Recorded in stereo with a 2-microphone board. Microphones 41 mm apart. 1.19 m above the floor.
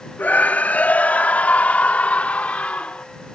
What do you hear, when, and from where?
0.2 s a scream: 45° left (ahead or behind); by 3.1 s 30° left (ahead or behind)